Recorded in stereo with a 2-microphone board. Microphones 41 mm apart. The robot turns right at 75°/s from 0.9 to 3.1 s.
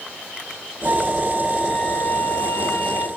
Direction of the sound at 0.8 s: 40° right.